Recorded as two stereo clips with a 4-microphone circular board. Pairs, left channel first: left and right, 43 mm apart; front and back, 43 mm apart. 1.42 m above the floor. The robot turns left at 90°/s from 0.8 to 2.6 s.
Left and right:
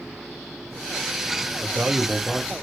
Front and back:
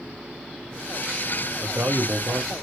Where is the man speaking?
130° right, 0.7 m; by 2.5 s 150° left, 0.7 m.